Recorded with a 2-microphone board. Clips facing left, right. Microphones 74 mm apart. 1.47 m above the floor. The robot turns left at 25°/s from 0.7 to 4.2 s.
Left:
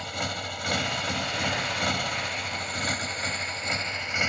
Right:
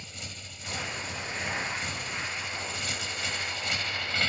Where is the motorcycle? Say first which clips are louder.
Left 13 dB; 110° left; by 4.3 s 20° left.